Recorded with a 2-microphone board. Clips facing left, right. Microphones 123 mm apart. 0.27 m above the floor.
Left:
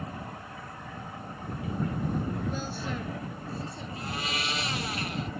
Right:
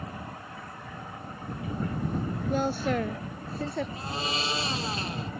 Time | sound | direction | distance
2.5 | a woman speaking | 55° right (ahead or behind) | ?
4.0 | a blender | 25° right (ahead or behind) | ?